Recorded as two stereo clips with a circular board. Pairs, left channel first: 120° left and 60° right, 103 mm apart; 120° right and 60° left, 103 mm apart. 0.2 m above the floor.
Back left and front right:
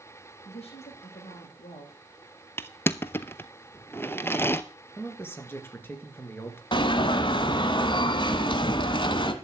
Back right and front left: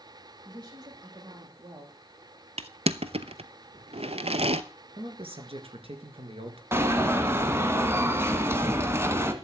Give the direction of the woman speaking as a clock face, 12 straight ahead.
8 o'clock.